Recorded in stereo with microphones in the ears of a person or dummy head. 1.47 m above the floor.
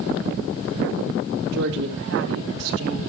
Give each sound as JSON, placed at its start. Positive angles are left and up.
{"t": 1.5, "sound": "a woman speaking", "side_deg": -70, "distance_m": 2.0}